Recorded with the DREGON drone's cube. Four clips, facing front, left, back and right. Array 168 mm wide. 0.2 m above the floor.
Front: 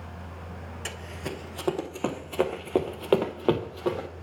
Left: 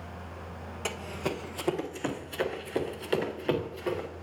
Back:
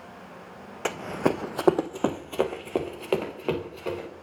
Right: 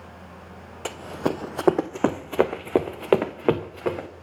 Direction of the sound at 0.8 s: 165° right.